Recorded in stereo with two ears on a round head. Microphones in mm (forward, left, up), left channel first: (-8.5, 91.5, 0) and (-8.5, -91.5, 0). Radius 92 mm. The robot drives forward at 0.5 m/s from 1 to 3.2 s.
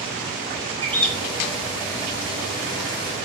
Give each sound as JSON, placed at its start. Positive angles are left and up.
{"t": 0.8, "sound": "a bird", "side_deg": 10, "distance_m": 3.0}